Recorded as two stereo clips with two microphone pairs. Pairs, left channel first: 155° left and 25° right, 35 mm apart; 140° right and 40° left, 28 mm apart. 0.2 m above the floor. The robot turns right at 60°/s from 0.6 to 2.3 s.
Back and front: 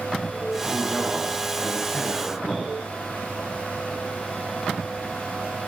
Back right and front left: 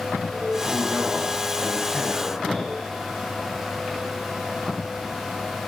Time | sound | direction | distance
0.6 | a man speaking | 15° right | 1.2 m